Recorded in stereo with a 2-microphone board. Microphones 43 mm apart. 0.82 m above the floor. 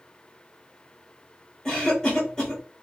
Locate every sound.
1.6 s a cough: 30° left (ahead or behind), 1.3 m